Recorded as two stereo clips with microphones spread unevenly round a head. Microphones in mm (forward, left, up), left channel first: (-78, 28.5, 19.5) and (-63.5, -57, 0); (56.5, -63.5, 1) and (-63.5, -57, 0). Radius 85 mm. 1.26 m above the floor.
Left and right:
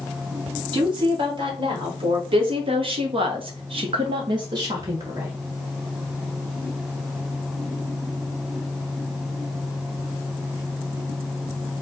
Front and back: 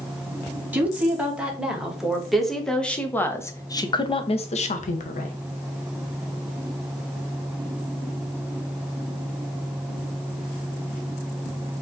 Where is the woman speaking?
105° right, 2 m; by 5.3 s 5° right, 0.9 m.